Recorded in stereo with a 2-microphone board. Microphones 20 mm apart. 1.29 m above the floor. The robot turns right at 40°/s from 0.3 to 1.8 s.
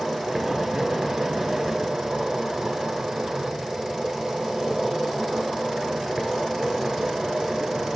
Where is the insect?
Centre (ahead or behind), 1.3 m; by 8.0 s 15° right (ahead or behind), 1.3 m.